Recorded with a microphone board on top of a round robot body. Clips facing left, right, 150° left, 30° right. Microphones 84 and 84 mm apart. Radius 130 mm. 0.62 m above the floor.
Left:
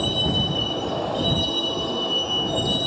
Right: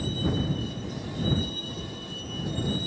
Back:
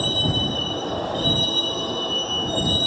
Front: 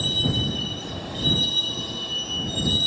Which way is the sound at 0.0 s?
105° left.